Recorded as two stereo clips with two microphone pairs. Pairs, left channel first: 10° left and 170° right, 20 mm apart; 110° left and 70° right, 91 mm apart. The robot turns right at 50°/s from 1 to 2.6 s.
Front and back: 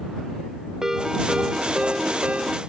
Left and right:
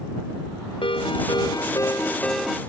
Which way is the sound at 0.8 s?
125° left.